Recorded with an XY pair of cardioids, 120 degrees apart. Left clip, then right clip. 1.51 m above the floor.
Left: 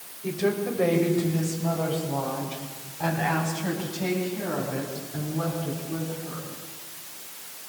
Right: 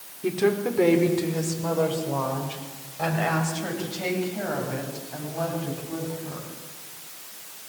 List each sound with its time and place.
0.2 s a woman speaking: 60° right, 5 m; by 6.5 s 80° right, 13.5 m